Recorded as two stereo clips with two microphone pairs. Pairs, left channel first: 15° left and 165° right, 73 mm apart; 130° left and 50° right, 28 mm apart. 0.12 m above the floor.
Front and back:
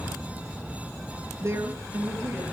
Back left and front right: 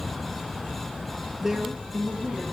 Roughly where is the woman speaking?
Behind right.